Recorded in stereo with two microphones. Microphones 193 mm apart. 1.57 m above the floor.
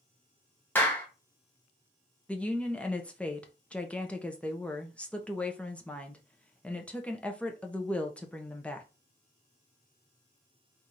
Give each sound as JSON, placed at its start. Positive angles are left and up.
{"t": 0.8, "sound": "a clap", "side_deg": 10, "distance_m": 1.6}
{"t": 2.3, "sound": "a woman speaking", "side_deg": 5, "distance_m": 0.9}